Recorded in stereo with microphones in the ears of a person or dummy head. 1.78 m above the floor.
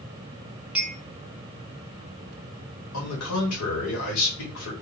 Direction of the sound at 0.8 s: 10° right (ahead or behind).